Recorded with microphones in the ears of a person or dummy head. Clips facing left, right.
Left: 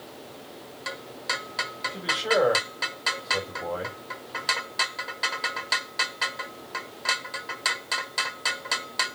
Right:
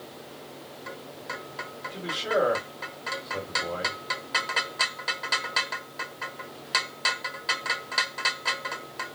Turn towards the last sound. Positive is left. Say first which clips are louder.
# left 2 dB
turn(degrees=10)  # may be behind; listen again after turning